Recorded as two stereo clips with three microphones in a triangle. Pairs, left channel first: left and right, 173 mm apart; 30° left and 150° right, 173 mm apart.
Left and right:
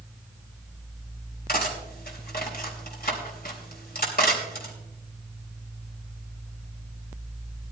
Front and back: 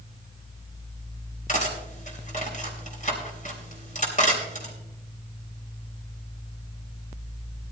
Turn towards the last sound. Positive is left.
turn(degrees=70)